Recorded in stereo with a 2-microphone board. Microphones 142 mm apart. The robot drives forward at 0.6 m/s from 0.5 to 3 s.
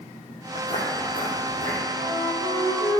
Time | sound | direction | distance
0.6 | footsteps | 60° left (ahead or behind) | 3 m
2.0 | a flute | 25° left (ahead or behind) | 3.5 m